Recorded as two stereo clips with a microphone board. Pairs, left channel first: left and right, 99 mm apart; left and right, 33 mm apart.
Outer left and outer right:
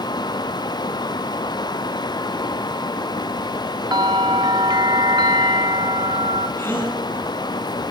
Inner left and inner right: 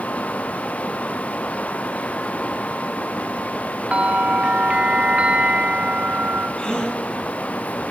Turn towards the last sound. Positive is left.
turn(degrees=20)  # may be behind; listen again after turning